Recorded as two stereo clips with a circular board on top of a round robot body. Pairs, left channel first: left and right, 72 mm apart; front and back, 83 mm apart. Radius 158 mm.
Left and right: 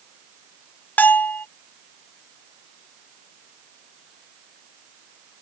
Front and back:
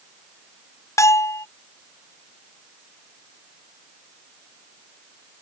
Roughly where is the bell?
Ahead left.